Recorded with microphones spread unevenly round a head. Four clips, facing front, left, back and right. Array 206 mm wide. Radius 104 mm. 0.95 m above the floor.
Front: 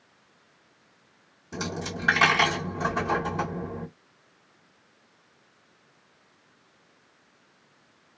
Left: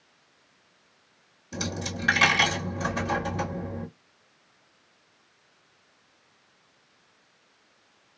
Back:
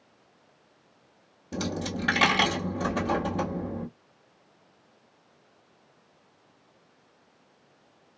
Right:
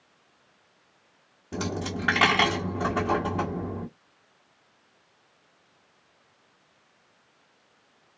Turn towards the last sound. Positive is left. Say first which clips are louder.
# right 3 dB, back 2 dB
turn(degrees=-125)